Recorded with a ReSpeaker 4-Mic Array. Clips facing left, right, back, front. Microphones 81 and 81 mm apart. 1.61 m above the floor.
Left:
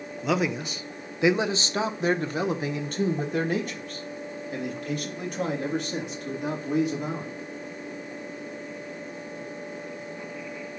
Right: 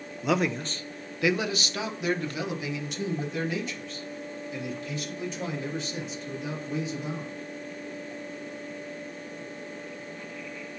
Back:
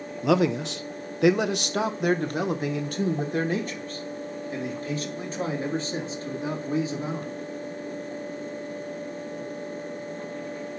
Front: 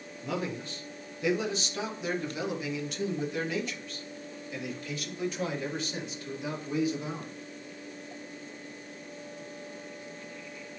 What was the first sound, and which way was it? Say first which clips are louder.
A man speaking: even, back 12 dB; straight behind.